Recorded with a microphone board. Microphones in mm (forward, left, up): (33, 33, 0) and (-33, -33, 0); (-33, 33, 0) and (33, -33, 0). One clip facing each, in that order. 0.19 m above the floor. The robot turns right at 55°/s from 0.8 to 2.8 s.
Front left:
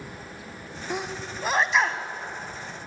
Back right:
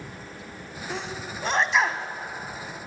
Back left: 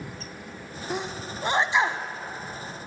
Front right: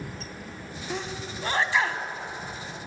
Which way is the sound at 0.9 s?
90° left.